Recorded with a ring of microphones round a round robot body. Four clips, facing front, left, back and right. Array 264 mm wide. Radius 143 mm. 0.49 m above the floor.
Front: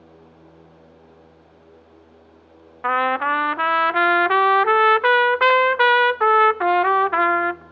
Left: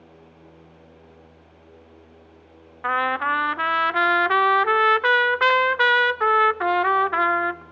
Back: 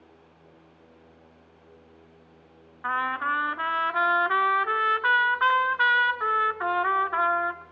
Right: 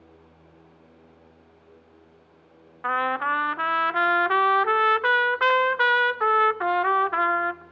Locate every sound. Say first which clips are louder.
2.8 s a trumpet: left 2 dB, front 7 dB; 5° left, 0.6 m